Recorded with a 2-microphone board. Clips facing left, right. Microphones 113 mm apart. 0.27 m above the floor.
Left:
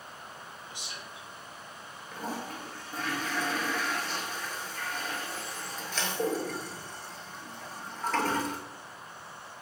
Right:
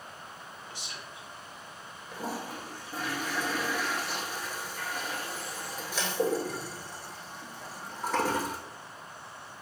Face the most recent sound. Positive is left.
turn(degrees=-10)  # may be behind; listen again after turning